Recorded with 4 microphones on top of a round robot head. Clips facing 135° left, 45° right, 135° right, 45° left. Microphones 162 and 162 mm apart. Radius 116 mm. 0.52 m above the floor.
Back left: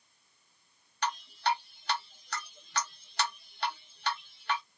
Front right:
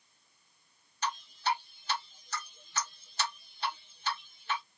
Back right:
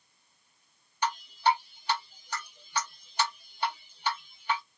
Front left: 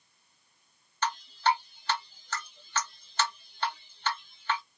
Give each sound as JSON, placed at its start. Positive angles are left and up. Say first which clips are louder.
{"t": 1.0, "sound": "dripping", "louder": "back left 2 dB, back right 1 dB", "azimuth_deg": 150, "distance_m": 2.0}